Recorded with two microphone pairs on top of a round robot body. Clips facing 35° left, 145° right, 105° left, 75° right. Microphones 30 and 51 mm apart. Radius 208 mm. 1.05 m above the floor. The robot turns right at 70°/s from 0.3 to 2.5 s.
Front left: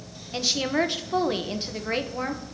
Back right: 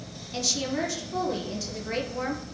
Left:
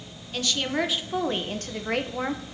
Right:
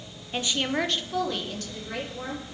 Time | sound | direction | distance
0.3 | a woman speaking | 20° right | 1.0 m